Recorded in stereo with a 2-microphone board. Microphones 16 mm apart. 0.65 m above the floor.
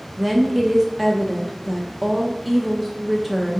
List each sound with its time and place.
0.2 s a woman speaking: 5° right (ahead or behind), 0.7 m